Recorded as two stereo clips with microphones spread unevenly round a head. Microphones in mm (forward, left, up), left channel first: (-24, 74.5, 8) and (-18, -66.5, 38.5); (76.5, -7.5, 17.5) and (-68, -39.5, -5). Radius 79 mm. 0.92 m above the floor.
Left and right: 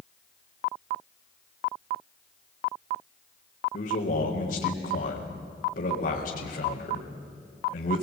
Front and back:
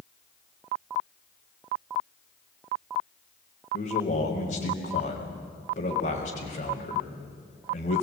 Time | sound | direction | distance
3.7 | a man speaking | 55° left | 4 m